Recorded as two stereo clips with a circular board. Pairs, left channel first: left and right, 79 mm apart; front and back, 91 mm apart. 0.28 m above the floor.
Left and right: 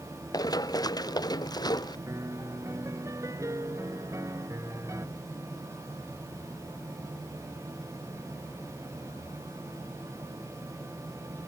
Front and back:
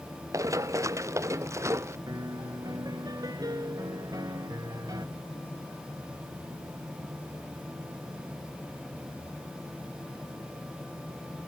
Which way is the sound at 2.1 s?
135° right.